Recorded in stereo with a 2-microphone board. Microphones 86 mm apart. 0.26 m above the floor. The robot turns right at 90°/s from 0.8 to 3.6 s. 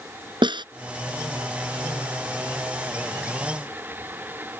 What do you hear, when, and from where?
0.4 s a snare drum: 70° right (ahead or behind)